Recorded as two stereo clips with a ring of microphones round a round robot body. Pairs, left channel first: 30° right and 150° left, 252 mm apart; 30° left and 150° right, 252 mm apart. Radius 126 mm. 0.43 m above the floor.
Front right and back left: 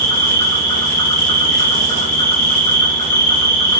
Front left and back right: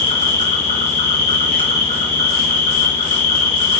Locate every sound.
0.0 s an insect: 40° right, 1.2 m